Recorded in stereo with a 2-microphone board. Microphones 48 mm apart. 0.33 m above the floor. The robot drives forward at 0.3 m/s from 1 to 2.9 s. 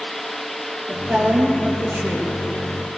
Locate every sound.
0.9 s a woman speaking: 45° right (ahead or behind), 7.5 m; by 2.3 s 40° right (ahead or behind), 7.5 m